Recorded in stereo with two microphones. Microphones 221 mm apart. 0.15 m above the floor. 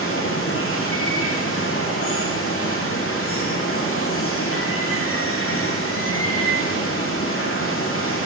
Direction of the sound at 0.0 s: 75° left (ahead or behind).